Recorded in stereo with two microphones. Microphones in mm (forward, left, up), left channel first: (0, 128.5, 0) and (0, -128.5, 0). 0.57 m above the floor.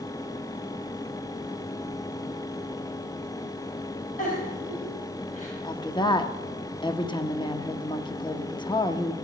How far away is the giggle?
About 5.5 m.